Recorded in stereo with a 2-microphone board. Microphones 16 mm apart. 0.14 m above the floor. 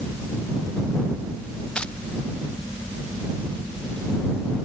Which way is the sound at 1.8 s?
75° left (ahead or behind).